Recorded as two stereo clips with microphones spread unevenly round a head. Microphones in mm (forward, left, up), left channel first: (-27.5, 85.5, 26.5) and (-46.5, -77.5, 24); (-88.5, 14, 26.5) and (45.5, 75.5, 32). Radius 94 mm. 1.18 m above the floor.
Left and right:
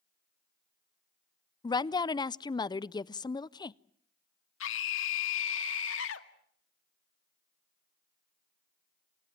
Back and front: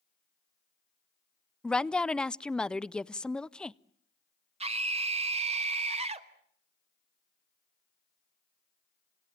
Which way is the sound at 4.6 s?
70° left.